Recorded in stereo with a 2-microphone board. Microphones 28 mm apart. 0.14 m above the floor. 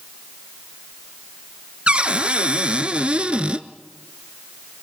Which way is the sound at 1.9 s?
45° right (ahead or behind).